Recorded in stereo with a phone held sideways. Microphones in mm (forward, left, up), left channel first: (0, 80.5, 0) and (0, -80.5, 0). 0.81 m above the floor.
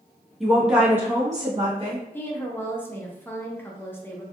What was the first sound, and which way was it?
A woman speaking, centre (ahead or behind).